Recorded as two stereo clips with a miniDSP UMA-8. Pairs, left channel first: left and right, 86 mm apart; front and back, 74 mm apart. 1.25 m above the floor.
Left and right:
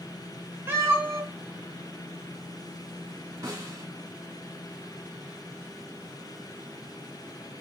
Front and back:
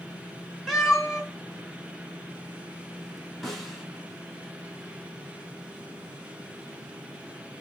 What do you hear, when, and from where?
0.7 s a cat meowing: 90° right, 1.0 m
3.4 s a snare drum: 85° right, 1.2 m